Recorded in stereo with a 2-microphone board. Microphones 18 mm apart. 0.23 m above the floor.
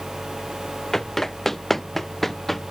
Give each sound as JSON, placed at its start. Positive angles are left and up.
{"t": 0.9, "sound": "running footsteps", "side_deg": 15}